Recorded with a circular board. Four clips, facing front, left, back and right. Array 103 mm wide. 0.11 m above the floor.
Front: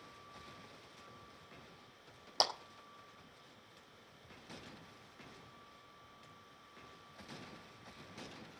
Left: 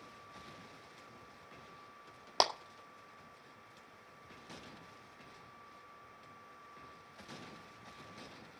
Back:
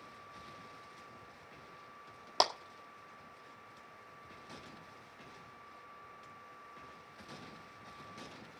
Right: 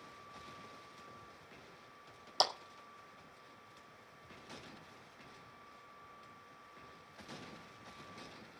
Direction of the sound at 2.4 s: 120° left.